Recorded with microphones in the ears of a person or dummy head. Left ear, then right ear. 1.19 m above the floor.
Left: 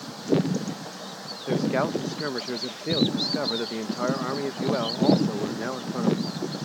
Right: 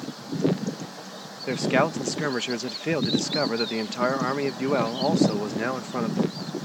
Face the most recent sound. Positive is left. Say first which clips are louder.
# right 2 dB
turn(degrees=-55)  # may be behind; listen again after turning